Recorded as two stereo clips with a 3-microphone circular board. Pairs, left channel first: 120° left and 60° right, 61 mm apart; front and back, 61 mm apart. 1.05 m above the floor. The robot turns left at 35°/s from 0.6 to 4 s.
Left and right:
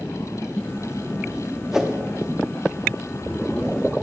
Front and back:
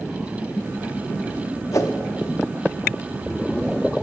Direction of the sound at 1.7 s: 25° left.